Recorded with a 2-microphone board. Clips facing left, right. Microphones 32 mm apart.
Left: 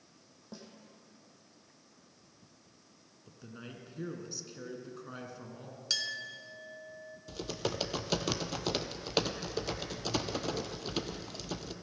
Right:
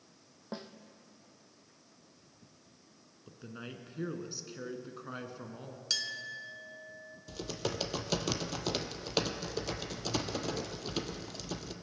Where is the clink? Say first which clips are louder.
Left 1 dB; 5° left (ahead or behind), 0.9 m.